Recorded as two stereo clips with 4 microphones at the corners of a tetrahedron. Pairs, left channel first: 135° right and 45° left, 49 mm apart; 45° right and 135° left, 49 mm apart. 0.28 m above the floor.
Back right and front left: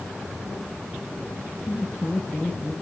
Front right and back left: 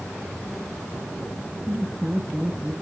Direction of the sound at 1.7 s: 175° right.